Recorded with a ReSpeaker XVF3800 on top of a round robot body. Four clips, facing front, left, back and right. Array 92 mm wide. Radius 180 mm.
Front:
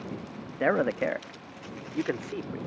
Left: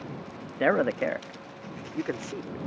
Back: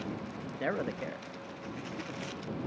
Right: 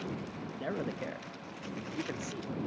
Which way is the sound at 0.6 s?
60° left.